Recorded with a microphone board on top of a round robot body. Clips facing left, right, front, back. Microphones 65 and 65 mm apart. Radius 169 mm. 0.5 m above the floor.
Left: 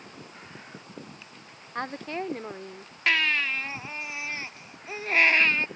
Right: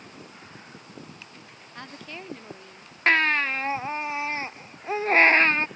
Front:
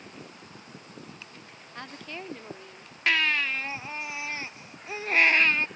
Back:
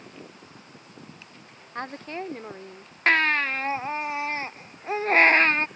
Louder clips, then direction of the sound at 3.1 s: Right 4 dB, back 4 dB; 140° right.